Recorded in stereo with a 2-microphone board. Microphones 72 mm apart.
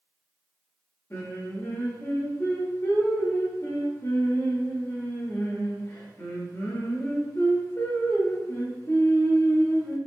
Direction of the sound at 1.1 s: 40° left (ahead or behind).